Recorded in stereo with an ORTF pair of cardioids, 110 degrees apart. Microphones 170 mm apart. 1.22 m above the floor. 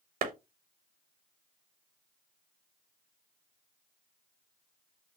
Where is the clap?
55° right, 0.9 m.